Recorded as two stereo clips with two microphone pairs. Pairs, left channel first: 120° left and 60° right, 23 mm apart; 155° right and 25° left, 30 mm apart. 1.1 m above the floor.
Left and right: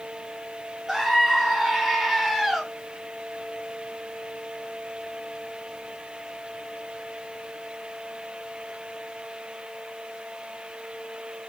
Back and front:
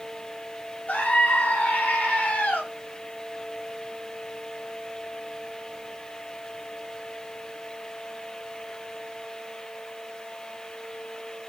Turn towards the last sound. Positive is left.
turn(degrees=-140)